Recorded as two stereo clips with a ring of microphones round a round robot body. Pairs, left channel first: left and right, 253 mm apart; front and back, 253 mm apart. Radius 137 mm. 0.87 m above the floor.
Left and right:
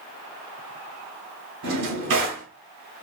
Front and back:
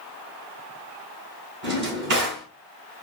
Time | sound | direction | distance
1.6 | a drawer | 140° right | 1.6 m